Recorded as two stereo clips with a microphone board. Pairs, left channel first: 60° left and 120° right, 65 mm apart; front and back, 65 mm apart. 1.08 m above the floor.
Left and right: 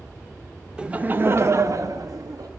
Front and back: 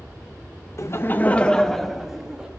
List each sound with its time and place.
0.8 s laughter: 45° right, 0.9 m; by 2.5 s 105° right, 1.5 m